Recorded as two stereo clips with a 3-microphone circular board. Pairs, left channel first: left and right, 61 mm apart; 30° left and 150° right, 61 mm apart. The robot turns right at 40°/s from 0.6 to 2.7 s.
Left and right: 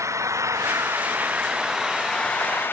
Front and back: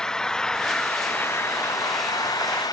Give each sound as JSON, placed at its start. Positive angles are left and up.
{"t": 0.0, "sound": "an engine running", "azimuth_deg": -50}